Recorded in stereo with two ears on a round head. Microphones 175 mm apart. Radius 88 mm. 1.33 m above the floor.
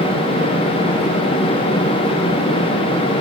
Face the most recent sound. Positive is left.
No sound to turn to.